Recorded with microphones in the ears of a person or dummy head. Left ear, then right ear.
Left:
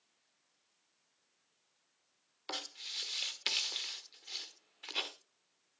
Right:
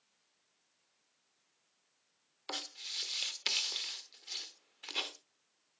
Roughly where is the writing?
Centre.